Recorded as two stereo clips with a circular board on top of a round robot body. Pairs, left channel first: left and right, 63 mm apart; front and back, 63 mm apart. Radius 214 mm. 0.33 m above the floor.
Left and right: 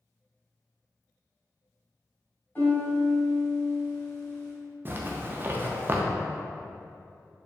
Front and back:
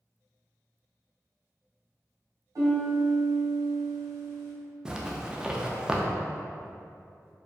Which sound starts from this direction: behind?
A piano, at 2.5 s.